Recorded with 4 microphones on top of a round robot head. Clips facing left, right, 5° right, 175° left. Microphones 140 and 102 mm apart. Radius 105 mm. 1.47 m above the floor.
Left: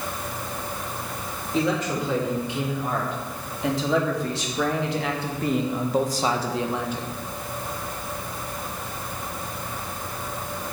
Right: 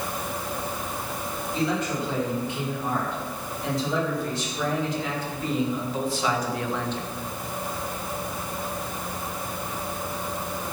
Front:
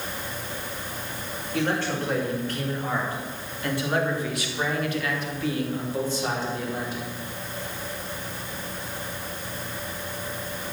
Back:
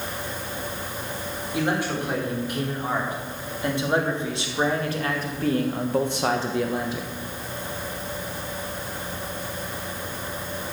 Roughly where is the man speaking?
Left.